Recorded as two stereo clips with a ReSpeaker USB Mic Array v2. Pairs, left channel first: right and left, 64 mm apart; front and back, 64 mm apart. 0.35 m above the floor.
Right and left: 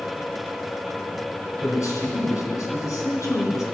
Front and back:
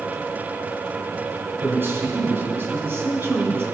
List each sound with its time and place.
1.6 s a man speaking: 125° right, 3.5 m